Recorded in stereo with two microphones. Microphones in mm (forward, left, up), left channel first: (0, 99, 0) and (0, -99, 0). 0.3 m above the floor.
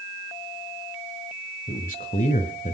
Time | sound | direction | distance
1.7 | a man speaking | 40° left (ahead or behind) | 1.5 m